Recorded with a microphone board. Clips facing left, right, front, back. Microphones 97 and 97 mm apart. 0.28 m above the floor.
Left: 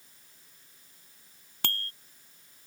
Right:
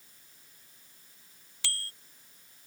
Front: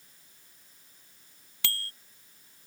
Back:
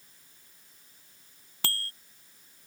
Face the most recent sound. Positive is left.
turn(degrees=130)